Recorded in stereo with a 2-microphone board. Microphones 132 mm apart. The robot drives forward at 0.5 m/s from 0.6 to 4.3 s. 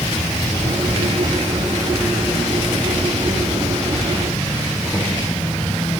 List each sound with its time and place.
0.0 s an insect: 45° left (ahead or behind), 1.3 m; by 6.0 s 20° left (ahead or behind), 3 m